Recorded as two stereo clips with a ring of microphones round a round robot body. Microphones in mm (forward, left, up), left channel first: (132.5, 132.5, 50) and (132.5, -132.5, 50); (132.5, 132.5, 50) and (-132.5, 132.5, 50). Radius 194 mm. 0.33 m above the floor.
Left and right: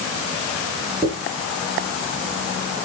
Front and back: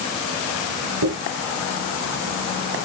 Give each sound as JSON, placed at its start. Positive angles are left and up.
{"t": 1.0, "sound": "a dropped coin", "azimuth_deg": 180, "distance_m": 4.5}